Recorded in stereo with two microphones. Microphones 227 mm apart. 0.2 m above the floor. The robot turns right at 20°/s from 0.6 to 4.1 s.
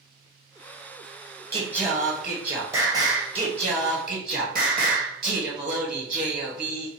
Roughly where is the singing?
Behind.